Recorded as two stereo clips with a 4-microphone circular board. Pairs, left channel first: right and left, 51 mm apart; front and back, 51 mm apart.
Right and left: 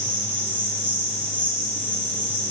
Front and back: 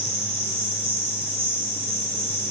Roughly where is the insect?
Behind right.